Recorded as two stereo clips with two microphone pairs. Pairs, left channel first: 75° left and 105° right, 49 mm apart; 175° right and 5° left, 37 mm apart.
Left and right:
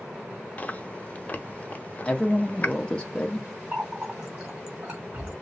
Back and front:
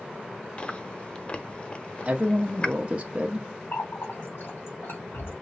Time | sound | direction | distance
0.6 | chewing | 125° left | 0.7 m
2.0 | a woman speaking | 20° left | 0.7 m
3.7 | a running tap | 170° right | 2.5 m